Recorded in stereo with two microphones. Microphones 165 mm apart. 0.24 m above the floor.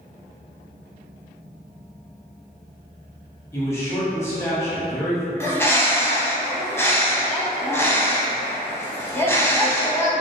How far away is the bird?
About 0.5 m.